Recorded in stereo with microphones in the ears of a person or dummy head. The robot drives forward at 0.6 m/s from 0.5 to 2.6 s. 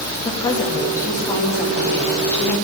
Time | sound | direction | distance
0.2 | a woman speaking | 25° left (ahead or behind) | 1.5 m